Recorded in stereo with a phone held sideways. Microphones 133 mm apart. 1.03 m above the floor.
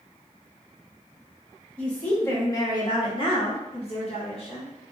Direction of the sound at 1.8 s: 10° left (ahead or behind).